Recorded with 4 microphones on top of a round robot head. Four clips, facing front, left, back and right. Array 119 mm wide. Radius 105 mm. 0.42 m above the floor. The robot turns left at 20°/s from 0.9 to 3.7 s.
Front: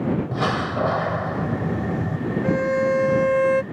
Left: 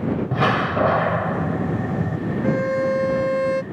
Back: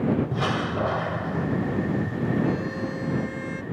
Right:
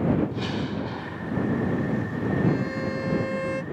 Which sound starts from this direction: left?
A door slam, at 0.3 s.